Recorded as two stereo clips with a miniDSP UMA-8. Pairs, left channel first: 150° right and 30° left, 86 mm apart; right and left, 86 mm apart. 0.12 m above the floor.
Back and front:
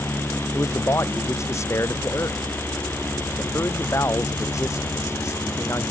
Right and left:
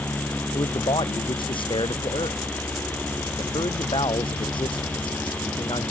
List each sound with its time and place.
0.5 s a man speaking: 95° right